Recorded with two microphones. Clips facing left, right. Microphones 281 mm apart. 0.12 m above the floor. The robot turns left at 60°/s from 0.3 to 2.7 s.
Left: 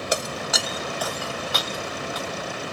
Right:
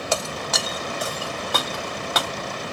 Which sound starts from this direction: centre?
Breaking glass, at 0.1 s.